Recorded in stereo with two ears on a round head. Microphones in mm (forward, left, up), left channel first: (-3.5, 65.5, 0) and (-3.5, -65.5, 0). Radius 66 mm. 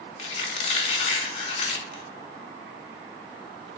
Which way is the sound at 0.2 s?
45° left (ahead or behind).